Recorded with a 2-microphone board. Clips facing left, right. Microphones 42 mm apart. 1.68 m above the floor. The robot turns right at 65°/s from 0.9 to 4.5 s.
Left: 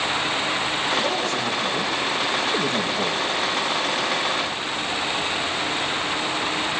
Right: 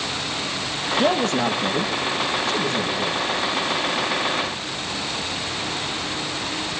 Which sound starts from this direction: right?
A man speaking, at 1.0 s.